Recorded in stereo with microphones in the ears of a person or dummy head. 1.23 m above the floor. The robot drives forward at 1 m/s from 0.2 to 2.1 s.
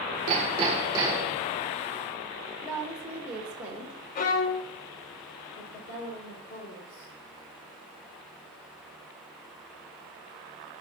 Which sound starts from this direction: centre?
A woman speaking, at 2.6 s.